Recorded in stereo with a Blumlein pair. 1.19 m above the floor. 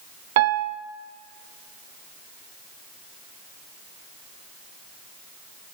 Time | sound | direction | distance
0.4 | a piano | 50° right | 0.6 m